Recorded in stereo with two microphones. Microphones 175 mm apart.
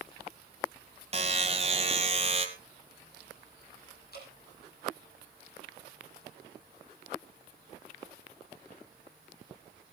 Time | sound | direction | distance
1.1 | a buzzer | 35° right (ahead or behind) | 1.7 m
4.1 | dripping | 65° left (ahead or behind) | 5.5 m